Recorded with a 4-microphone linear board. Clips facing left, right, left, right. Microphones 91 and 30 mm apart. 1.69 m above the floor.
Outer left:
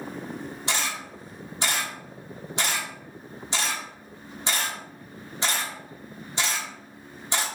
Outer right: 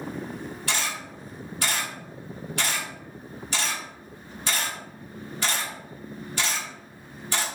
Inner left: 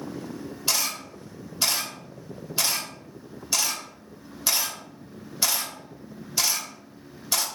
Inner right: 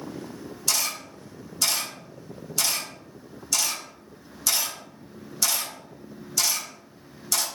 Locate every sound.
0.7 s a camera shutter: 25° left (ahead or behind), 1.3 m